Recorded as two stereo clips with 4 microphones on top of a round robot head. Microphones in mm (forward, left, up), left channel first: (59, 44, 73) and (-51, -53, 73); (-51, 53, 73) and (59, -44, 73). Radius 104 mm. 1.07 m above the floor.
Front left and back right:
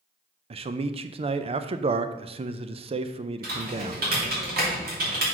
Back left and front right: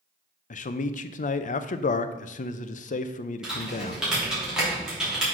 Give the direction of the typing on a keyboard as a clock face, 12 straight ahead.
4 o'clock.